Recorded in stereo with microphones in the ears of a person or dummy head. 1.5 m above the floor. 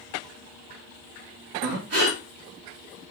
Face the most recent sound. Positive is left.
turn(degrees=-55)  # may be behind; listen again after turning